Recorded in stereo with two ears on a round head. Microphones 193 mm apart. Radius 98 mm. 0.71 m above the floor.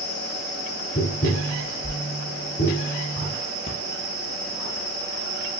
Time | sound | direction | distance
0.9 | tapping | 45° left (ahead or behind) | 2.5 m
3.7 | breathing | 30° left (ahead or behind) | 1.1 m